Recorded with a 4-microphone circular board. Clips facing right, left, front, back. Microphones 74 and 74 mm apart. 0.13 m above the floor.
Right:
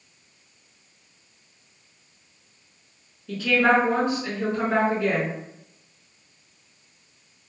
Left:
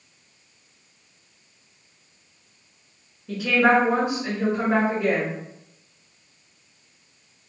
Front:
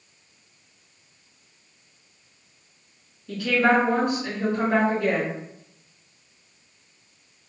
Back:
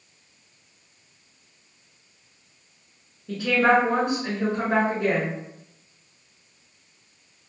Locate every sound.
3.3 s a woman speaking: 150° left, 1.6 m